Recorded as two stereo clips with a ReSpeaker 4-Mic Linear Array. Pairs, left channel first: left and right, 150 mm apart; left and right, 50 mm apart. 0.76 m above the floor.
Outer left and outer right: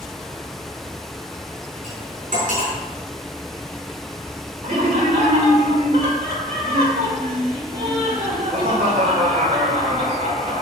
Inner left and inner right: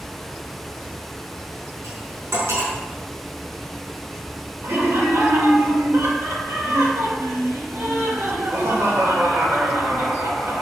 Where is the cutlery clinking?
85° right, 4.5 m.